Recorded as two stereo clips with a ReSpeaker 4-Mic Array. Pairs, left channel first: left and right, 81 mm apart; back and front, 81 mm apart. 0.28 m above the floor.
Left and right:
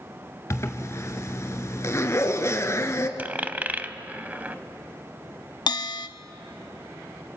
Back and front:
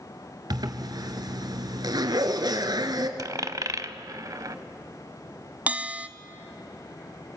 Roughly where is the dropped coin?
Ahead right.